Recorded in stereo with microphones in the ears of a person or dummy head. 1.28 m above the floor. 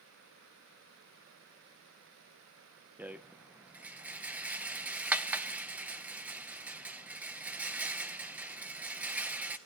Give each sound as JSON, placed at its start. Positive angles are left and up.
{"t": 3.0, "sound": "a rattle", "side_deg": -10, "distance_m": 0.8}